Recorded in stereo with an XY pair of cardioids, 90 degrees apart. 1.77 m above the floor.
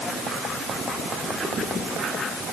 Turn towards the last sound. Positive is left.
No sound to turn to.